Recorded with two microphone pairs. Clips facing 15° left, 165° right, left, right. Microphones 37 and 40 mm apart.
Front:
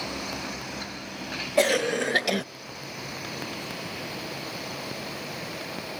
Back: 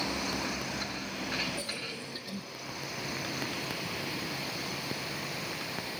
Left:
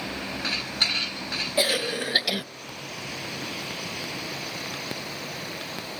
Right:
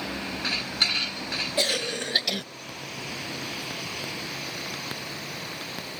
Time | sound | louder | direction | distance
1.6 | a cough | front 16 dB, left 3 dB | 15° left | 0.5 m